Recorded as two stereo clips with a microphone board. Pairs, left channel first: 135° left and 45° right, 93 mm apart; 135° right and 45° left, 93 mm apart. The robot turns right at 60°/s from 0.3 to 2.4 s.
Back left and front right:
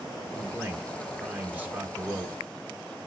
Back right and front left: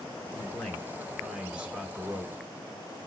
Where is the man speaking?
90° right, 0.9 m; by 2.4 s 30° left, 0.9 m.